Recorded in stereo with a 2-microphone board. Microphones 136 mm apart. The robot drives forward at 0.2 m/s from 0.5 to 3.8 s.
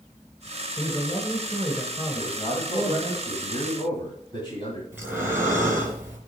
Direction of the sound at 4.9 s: 15° right (ahead or behind).